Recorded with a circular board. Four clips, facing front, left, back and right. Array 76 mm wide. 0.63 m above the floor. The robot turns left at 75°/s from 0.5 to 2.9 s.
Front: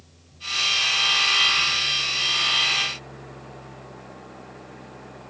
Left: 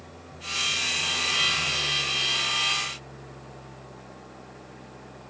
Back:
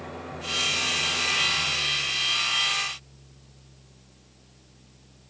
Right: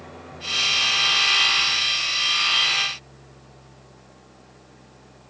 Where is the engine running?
160° right; by 5.3 s 20° left.